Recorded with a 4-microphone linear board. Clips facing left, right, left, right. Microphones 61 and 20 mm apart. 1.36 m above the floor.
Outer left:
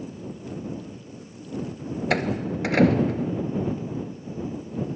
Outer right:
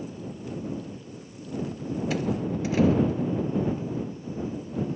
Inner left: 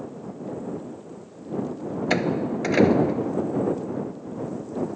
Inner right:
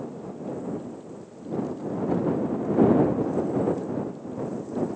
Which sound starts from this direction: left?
A door slam, at 2.1 s.